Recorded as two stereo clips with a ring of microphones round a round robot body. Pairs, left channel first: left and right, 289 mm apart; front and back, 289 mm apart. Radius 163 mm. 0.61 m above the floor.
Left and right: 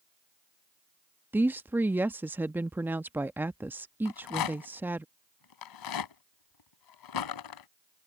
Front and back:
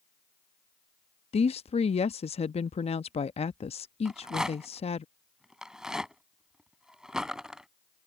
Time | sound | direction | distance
1.3 | a woman speaking | 20° right | ?
4.0 | a rattle | 90° left | ?